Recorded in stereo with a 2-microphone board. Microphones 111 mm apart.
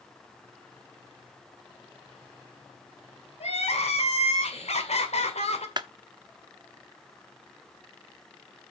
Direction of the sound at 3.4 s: 75° left (ahead or behind).